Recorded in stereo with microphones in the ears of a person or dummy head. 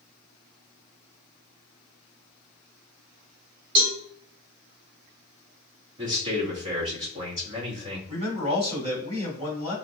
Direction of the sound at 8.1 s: 30° right (ahead or behind).